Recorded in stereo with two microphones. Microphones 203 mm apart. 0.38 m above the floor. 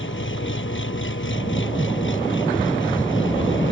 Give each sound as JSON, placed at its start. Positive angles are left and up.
{"t": 0.0, "sound": "an engine running", "side_deg": 75}